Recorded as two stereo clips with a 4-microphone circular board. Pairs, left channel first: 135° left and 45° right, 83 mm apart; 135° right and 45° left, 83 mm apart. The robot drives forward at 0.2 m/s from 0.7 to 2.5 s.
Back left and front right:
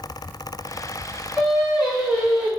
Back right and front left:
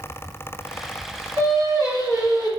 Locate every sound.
1.4 s singing: 50° left, 2.0 m; by 2.5 s 55° left, 1.9 m